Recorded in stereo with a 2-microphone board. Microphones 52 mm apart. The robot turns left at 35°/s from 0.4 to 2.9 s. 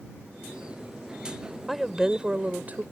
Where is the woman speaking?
5° right; by 2.8 s 45° right.